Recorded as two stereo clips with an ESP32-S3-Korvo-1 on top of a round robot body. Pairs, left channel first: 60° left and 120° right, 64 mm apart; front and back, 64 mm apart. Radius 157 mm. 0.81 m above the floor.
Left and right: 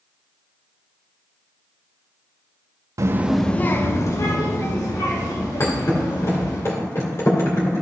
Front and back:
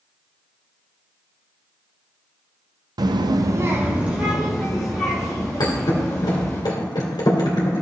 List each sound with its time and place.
3.0 s a child speaking: 160° right, 0.6 m; by 6.6 s 90° left, 4 m
5.6 s a thud: 10° left, 2 m